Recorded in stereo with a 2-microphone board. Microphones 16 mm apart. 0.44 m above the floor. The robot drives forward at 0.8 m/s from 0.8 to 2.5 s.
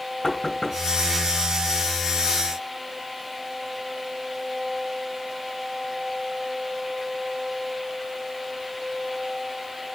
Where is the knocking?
30° left (ahead or behind), 2.5 m.